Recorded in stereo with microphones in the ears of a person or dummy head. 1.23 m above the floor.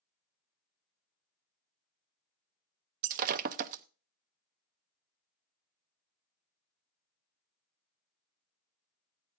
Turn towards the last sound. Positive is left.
turn(degrees=-45)  # may be behind; listen again after turning